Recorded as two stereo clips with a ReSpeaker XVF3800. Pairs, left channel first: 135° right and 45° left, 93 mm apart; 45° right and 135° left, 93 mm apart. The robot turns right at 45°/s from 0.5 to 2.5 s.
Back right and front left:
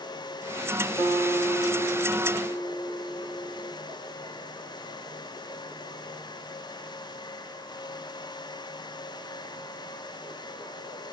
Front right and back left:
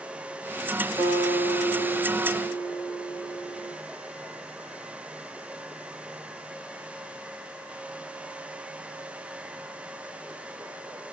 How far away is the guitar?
About 2.0 m.